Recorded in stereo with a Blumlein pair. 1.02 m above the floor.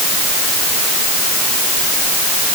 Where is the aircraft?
No aircraft in this recording.